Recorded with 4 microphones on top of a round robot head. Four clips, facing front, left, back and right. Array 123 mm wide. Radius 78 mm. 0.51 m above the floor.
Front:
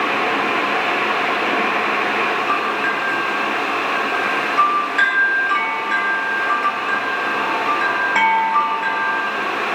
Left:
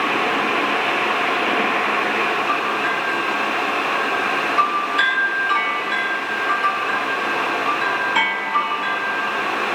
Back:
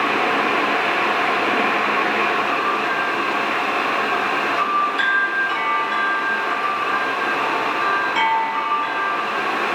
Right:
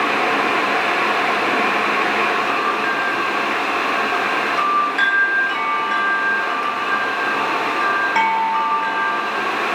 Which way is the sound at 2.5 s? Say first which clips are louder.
Right 1 dB, front 1 dB; 35° right.